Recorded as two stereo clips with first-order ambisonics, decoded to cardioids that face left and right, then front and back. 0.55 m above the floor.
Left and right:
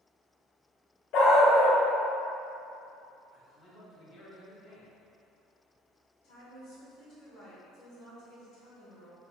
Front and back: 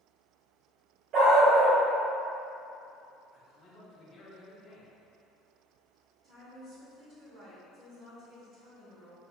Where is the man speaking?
65° left, 1.2 m.